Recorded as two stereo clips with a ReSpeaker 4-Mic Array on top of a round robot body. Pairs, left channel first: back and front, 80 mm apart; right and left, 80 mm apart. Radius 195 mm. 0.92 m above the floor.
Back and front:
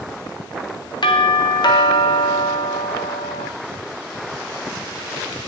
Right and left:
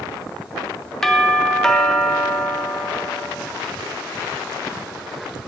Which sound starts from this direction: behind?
A doorbell, at 1.0 s.